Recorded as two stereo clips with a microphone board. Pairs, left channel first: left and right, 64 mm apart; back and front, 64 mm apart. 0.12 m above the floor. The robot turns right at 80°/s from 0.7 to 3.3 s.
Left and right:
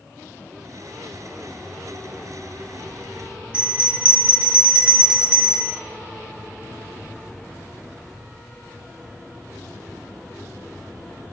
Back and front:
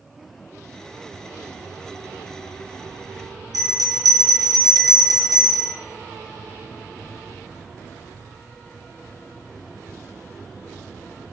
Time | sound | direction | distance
3.5 | a bell | 15° right | 0.9 m